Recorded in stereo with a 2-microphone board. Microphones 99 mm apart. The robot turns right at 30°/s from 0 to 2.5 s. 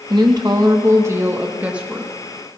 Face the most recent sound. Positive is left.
turn(degrees=5)